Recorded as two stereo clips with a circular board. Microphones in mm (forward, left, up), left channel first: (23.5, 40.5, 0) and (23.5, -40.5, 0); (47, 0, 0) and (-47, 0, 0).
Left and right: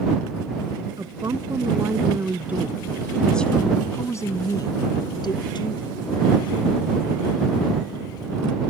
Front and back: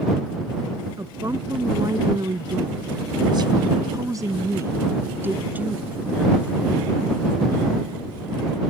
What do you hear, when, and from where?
1.0 s a woman speaking: 125° right; by 6.6 s 100° left